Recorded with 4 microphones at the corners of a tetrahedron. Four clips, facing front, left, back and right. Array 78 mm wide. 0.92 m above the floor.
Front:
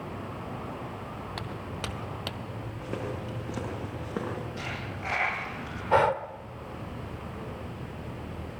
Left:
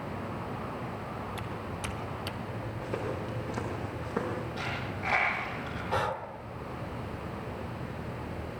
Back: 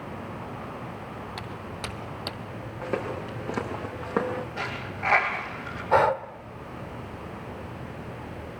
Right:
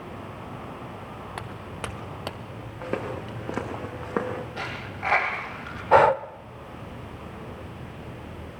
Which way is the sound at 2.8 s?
120° right.